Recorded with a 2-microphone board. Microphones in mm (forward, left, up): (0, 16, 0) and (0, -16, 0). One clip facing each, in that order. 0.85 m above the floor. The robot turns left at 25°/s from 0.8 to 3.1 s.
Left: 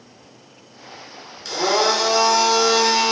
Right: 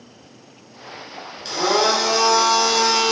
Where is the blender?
160° right, 0.8 m; by 3.1 s 160° left, 0.8 m.